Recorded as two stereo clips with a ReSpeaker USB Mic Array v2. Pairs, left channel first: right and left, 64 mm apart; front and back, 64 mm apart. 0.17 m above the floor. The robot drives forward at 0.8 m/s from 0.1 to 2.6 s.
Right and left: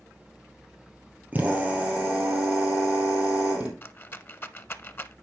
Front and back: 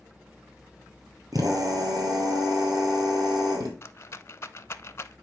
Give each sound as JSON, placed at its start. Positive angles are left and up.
{"t": 1.3, "sound": "a drill", "azimuth_deg": 155, "distance_m": 2.5}
{"t": 3.8, "sound": "a rattle", "azimuth_deg": -40, "distance_m": 0.5}